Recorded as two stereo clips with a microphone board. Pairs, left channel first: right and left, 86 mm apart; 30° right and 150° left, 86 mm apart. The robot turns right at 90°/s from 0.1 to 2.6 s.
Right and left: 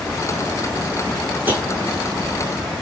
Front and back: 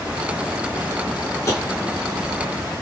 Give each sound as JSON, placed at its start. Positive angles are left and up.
{"t": 1.5, "sound": "tapping", "azimuth_deg": 20, "distance_m": 1.5}